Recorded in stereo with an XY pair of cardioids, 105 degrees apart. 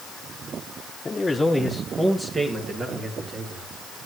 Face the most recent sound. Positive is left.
turn(degrees=-55)